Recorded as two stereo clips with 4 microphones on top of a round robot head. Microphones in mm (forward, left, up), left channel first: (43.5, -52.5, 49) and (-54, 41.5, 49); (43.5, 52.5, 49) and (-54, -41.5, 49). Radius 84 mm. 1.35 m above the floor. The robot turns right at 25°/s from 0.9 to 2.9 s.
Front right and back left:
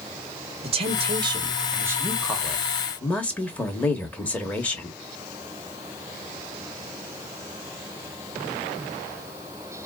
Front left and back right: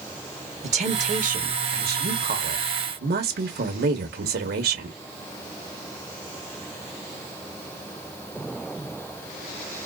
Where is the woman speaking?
175° right, 1.1 m; by 5.0 s 125° right, 1.1 m.